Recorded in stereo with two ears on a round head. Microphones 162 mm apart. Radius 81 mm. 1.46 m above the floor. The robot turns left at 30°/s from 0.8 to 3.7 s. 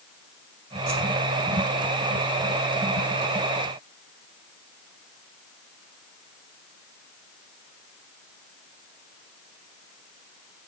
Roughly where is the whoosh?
Right.